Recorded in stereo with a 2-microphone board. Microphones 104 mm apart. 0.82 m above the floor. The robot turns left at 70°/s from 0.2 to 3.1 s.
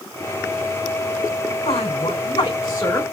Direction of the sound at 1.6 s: 105° left.